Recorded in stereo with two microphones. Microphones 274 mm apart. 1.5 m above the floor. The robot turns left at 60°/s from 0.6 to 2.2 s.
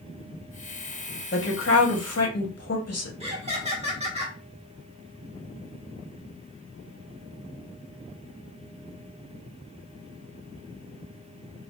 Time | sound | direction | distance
1.3 | a woman speaking | 135° left | 0.8 m
3.2 | laughter | 20° right (ahead or behind) | 1.1 m